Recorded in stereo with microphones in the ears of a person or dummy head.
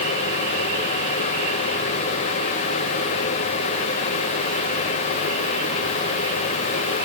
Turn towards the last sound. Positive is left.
No sound to turn to.